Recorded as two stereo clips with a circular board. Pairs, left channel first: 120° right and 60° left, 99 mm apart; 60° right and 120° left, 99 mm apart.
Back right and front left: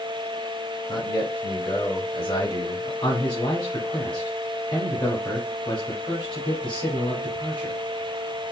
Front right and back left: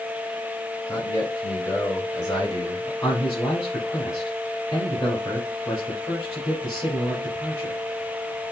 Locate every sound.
0.9 s a man speaking: 115° right, 1.9 m; by 2.9 s 105° right, 3 m
3.0 s a man speaking: 110° right, 2 m